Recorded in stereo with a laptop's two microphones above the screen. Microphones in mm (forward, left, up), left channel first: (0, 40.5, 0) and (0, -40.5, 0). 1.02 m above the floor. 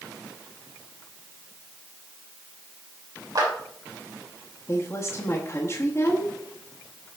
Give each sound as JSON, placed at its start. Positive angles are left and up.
{"t": 3.4, "sound": "a clap", "side_deg": -50, "distance_m": 3.0}
{"t": 4.7, "sound": "a woman speaking", "side_deg": 30, "distance_m": 1.1}